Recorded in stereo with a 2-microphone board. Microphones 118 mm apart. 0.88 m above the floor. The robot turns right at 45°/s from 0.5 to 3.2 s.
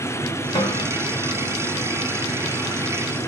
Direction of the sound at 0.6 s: 35° left (ahead or behind).